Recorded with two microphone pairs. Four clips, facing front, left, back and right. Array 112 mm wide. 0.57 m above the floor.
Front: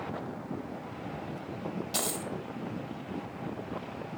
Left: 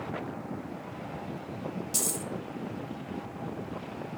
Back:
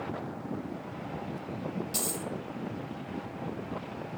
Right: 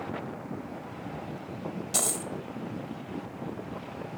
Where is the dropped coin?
55° right, 0.5 m.